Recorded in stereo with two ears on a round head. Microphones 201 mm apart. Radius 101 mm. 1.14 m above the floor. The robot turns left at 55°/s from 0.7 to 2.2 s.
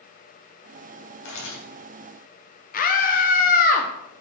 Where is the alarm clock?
I don't hear an alarm clock.